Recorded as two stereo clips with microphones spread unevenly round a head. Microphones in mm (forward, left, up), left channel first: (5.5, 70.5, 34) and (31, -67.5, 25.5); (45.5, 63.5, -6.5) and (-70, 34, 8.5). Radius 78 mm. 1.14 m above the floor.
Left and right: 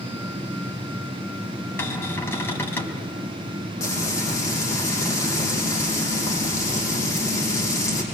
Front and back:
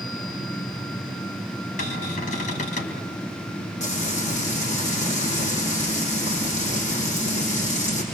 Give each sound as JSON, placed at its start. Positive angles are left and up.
{"t": 1.8, "sound": "a cupboard door", "azimuth_deg": 25, "distance_m": 4.5}
{"t": 3.8, "sound": "frying", "azimuth_deg": 30, "distance_m": 8.0}